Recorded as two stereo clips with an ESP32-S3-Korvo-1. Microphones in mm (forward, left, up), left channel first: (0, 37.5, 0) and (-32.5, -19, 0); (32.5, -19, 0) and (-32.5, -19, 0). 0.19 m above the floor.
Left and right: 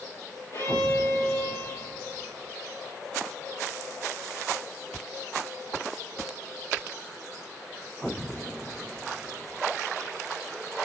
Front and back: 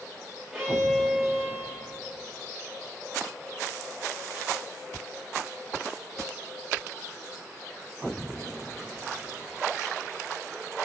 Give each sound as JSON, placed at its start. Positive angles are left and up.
{"t": 0.5, "sound": "a violin", "azimuth_deg": 100, "distance_m": 4.0}